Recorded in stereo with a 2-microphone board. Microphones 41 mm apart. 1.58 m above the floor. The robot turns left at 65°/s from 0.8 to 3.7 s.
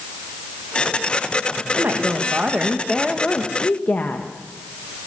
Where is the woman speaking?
100° right, 1.4 m; by 5.1 s 130° left, 1.4 m.